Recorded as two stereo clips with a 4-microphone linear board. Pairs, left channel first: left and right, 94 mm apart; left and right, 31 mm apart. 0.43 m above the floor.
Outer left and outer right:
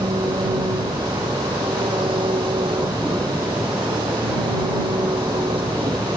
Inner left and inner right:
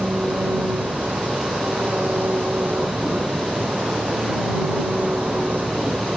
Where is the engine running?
65° right (ahead or behind).